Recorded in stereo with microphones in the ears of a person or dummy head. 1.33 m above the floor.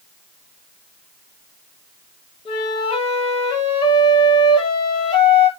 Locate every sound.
2.5 s a flute: 25° left (ahead or behind), 0.9 m